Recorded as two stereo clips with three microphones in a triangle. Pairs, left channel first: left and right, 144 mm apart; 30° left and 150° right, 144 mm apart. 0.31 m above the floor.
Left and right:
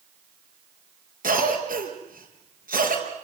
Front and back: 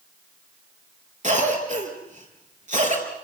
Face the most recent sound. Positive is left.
turn(degrees=-115)